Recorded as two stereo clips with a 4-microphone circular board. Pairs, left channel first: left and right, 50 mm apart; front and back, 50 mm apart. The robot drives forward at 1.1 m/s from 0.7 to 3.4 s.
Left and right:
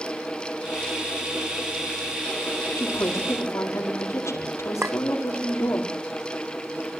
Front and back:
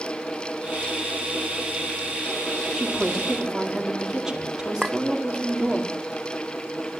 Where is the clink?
105° right, 1.0 m.